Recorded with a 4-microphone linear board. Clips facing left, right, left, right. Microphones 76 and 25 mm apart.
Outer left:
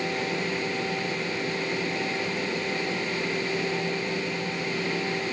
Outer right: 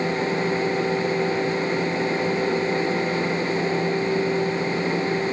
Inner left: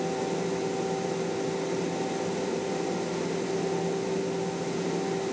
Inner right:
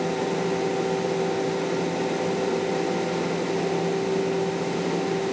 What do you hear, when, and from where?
Only background noise.